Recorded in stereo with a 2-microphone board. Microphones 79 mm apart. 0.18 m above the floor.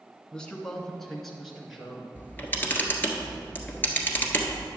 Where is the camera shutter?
25° left (ahead or behind), 1.4 m.